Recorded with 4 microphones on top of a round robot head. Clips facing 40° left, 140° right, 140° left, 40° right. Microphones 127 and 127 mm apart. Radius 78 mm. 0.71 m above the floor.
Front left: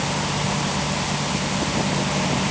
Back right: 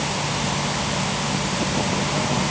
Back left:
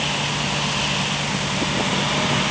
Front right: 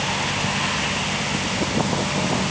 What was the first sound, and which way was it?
Only background noise.